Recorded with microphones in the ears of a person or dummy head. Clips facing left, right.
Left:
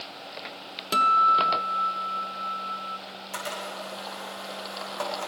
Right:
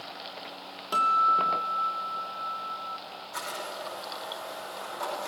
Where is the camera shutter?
80° left, 8.5 m.